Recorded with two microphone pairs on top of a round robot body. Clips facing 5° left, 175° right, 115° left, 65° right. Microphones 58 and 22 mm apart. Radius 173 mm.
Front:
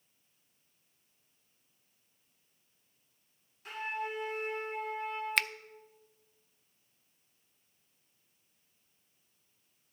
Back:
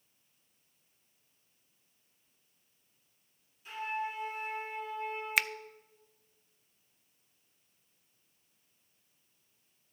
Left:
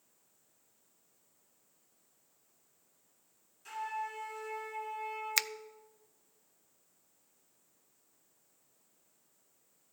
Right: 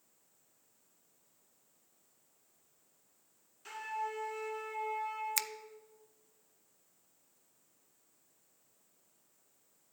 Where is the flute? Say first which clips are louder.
Back 1 dB, even; straight ahead, 2 m.